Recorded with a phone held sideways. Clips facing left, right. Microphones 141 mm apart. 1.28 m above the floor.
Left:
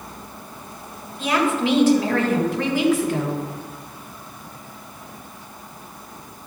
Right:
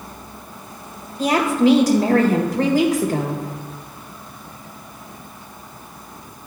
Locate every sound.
1.2 s a woman speaking: 35° right (ahead or behind), 1.5 m